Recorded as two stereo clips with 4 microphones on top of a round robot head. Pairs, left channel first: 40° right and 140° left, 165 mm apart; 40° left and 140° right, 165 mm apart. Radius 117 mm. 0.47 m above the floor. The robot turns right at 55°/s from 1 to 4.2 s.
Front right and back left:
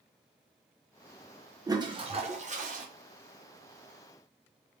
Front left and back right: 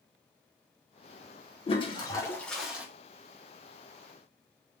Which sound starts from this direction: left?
A toilet flushing, at 1.7 s.